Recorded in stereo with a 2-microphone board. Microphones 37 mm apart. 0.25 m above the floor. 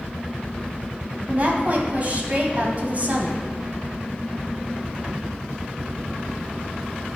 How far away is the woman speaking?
About 1.6 m.